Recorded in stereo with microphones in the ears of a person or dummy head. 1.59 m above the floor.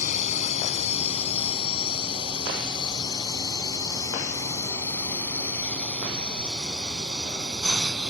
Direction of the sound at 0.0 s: 45° left (ahead or behind).